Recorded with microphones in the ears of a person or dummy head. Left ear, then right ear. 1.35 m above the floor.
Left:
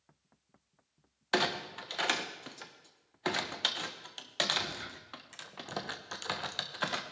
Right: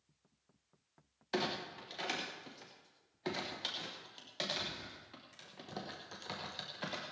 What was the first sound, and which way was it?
A clunk, 40° left (ahead or behind).